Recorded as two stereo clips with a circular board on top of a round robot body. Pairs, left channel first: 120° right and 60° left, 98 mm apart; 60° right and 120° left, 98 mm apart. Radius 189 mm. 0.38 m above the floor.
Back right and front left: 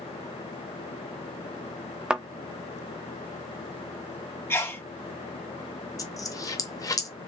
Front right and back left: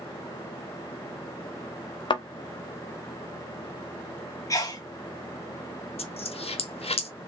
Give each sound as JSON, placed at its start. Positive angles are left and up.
{"t": 2.1, "sound": "a thud", "azimuth_deg": -20, "distance_m": 0.6}
{"t": 4.5, "sound": "a sneeze", "azimuth_deg": -75, "distance_m": 1.4}
{"t": 6.0, "sound": "a dropped coin", "azimuth_deg": -65, "distance_m": 1.1}